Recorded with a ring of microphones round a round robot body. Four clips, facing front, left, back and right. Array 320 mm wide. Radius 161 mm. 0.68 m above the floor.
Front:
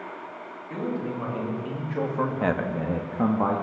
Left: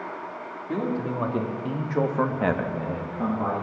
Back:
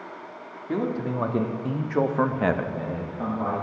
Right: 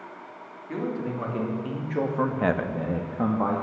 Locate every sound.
0.7 s a man speaking: 155° left, 1.3 m; by 3.6 s 30° right, 0.9 m